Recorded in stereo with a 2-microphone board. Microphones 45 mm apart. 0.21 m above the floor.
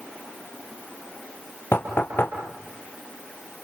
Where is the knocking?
50° left (ahead or behind), 3.5 m.